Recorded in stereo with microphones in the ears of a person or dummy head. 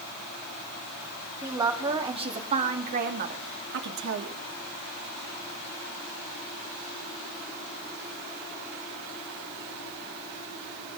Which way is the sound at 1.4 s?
15° right (ahead or behind).